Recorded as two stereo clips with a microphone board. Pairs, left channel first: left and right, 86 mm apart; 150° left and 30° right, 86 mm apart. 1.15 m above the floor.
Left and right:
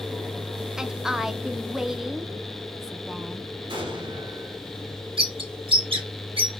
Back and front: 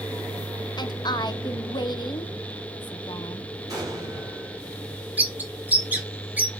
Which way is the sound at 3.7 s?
80° right.